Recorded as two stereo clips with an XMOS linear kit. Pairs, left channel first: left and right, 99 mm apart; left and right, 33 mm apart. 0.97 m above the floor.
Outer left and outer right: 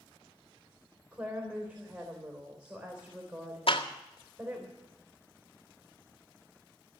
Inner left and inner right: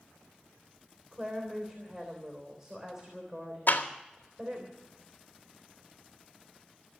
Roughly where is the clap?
Left.